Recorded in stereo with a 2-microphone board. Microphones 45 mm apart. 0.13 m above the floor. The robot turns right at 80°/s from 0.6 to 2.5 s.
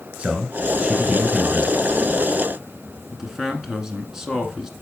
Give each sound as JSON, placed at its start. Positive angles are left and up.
{"t": 0.2, "sound": "a man speaking", "side_deg": -25, "distance_m": 1.4}
{"t": 3.1, "sound": "a man speaking", "side_deg": -10, "distance_m": 1.1}